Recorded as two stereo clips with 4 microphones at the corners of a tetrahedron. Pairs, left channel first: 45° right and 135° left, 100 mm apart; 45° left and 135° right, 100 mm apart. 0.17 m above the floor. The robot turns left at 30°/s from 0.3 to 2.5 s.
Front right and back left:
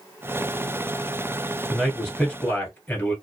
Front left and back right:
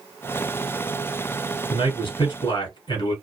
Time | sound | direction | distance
1.7 | a man speaking | 50° left | 1.6 m